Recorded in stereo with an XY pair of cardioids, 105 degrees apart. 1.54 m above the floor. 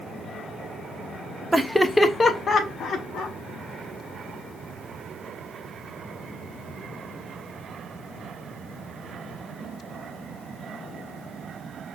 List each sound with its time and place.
1.5 s laughter: 10° right, 0.6 m; by 3.4 s 70° left, 1.2 m